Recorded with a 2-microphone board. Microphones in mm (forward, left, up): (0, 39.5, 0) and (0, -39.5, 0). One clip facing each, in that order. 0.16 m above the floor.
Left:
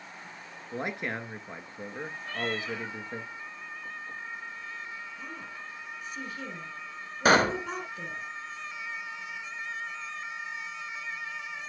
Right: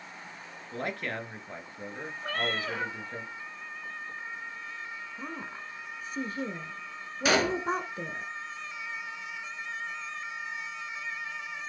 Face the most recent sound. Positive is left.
turn(degrees=45)  # may be behind; listen again after turning